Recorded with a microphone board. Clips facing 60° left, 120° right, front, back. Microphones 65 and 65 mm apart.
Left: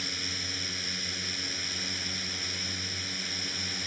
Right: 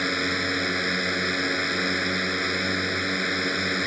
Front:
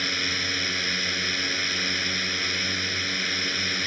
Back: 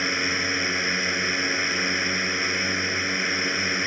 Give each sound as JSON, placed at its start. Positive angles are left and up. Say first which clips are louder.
{"t": 0.0, "sound": "a drone", "louder": "right 13 dB, back 4 dB", "azimuth_deg": -115}